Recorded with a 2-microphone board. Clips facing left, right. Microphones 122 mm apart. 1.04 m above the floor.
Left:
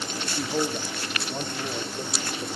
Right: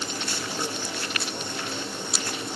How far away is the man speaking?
About 2 m.